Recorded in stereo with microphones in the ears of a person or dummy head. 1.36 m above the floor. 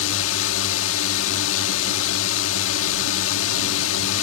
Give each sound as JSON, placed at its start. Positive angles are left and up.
{"t": 0.0, "sound": "a drone", "side_deg": 70}